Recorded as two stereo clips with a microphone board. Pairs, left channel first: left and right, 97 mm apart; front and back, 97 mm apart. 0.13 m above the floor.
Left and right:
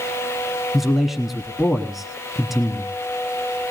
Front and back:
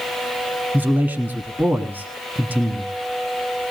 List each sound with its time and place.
0.7 s a man speaking: 175° right, 1.0 m